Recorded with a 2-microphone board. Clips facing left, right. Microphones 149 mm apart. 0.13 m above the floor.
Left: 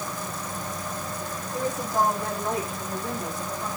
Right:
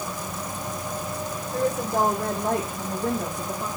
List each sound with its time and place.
1.5 s a woman speaking: 55° right (ahead or behind), 7 m; by 3.7 s 50° right (ahead or behind), 5.5 m